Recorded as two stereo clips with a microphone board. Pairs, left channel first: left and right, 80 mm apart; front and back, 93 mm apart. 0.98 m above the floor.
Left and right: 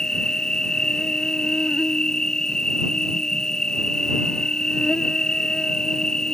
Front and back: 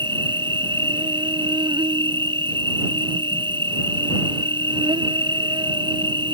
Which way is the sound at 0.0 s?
170° left.